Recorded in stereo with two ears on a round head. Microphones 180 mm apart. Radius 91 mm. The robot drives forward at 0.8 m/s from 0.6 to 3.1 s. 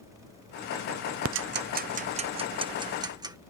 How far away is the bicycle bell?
I don't hear a bicycle bell.